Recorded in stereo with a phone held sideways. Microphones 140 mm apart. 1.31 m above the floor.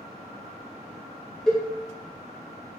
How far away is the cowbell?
About 0.6 m.